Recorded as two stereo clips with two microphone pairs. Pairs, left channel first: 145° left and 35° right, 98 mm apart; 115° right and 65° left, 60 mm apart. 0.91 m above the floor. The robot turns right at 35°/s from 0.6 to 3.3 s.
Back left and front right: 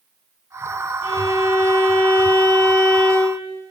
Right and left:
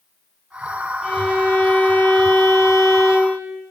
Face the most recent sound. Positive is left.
turn(degrees=-130)